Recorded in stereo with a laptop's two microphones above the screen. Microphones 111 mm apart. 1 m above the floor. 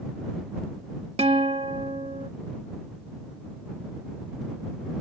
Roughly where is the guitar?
Right.